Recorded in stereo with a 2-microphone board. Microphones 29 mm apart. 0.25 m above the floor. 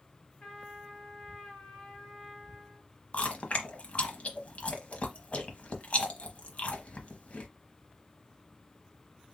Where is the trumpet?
35° left (ahead or behind), 2.5 m.